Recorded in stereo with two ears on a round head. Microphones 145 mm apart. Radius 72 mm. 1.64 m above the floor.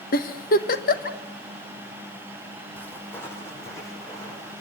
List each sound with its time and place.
0.1 s a giggle: 55° left (ahead or behind), 1.6 m
2.8 s footsteps: 10° left (ahead or behind), 5 m; by 4.6 s 25° left (ahead or behind), 6.5 m